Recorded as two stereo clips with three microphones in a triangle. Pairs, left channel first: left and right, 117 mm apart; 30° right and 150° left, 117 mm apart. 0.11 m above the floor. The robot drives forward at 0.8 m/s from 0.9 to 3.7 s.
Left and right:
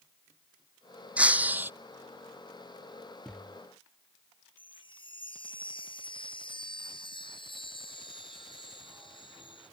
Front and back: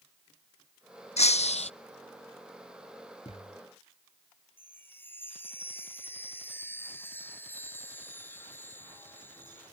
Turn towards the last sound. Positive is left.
turn(degrees=45)